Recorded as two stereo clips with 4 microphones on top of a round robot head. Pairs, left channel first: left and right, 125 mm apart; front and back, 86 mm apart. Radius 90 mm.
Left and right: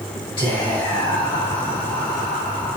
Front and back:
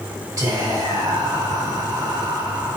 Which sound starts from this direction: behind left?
Whispering, at 0.4 s.